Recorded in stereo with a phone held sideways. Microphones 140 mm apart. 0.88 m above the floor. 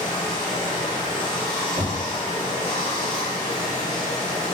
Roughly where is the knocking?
Right.